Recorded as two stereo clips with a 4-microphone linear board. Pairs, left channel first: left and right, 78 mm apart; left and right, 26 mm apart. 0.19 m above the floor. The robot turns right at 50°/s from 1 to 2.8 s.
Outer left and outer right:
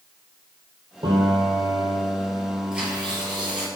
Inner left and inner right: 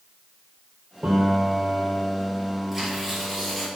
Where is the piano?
90° right, 3 m; by 3.7 s straight ahead, 3 m.